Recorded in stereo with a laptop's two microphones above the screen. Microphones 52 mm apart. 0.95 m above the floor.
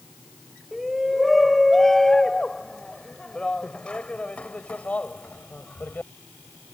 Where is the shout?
5° right (ahead or behind); by 6.1 s 35° left (ahead or behind).